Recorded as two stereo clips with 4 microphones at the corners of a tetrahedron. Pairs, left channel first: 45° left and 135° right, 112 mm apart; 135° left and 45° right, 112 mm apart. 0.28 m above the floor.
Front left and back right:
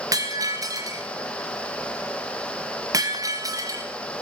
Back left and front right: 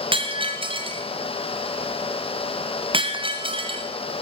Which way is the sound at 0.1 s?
80° right.